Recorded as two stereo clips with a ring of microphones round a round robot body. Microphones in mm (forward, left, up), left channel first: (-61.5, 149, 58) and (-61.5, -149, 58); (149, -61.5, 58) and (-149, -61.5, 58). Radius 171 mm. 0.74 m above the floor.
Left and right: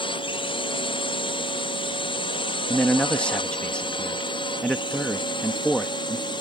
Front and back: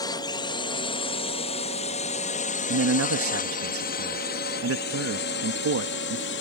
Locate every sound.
0.0 s a drone: 50° left; by 6.4 s 20° left
2.7 s a man speaking: 175° left